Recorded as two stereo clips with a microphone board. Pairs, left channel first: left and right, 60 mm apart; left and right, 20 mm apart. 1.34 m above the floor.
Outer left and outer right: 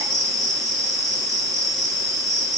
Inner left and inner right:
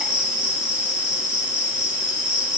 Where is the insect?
75° right (ahead or behind), 4.5 m.